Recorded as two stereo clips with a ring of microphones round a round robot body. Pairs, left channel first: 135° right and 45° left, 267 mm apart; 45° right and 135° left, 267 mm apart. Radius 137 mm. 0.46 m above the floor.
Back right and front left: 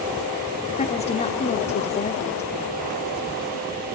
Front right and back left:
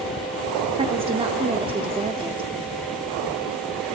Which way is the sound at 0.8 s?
175° right.